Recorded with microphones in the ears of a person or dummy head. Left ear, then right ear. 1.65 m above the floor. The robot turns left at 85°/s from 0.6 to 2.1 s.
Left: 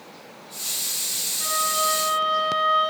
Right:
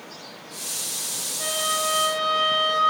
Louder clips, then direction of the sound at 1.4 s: Left 1 dB; 20° right.